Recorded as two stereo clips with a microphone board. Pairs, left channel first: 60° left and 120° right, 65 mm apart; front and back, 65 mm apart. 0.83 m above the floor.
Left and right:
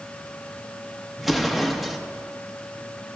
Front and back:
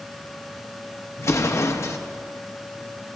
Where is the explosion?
35° right, 0.6 m.